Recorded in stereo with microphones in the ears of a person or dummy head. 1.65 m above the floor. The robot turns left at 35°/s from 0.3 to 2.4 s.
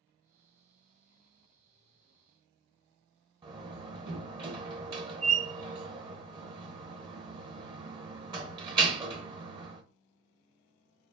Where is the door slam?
25° right (ahead or behind), 0.8 m.